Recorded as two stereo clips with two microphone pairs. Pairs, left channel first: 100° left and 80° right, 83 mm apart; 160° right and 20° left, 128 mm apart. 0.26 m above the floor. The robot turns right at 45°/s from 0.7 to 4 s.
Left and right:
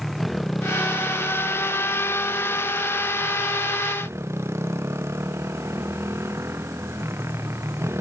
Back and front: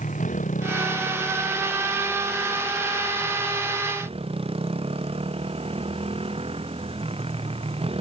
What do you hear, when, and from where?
0.0 s a motorcycle: 170° right; by 8.0 s 20° right